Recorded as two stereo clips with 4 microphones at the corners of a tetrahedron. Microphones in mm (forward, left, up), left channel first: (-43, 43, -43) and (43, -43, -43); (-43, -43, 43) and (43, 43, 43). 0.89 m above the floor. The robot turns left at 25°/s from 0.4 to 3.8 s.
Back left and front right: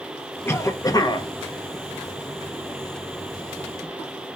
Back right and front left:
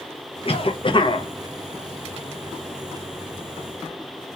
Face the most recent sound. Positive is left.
turn(degrees=115)